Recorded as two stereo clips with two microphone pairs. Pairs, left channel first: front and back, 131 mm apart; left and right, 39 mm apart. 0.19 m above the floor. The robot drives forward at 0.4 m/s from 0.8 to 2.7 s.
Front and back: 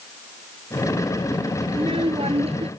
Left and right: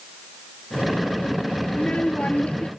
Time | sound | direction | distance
1.7 | a child speaking | 140° left | ?